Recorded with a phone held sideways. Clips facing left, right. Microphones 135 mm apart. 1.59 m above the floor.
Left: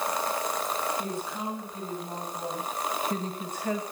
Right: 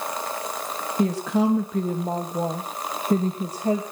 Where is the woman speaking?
85° right, 2.5 m; by 3.8 s 30° right (ahead or behind), 2 m.